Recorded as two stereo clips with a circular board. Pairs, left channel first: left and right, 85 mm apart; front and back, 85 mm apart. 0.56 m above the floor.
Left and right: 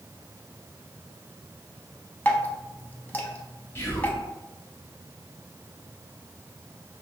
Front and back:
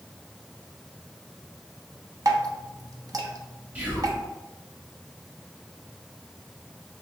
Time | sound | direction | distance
2.2 | dripping | 150° left | 0.5 m
3.8 | whispering | 120° left | 1.1 m